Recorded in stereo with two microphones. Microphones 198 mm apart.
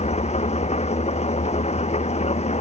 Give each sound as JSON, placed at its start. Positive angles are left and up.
{"t": 0.0, "sound": "an engine running", "side_deg": 35}